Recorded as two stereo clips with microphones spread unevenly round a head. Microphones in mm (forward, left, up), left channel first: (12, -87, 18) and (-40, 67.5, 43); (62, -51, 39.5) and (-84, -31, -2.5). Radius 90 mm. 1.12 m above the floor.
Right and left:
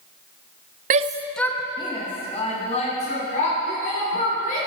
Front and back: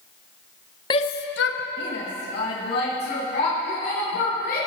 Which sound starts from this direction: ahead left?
A shout, at 0.9 s.